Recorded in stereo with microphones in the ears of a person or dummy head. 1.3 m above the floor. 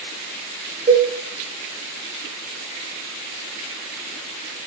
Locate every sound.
0.9 s a cowbell: 35° right (ahead or behind), 1.1 m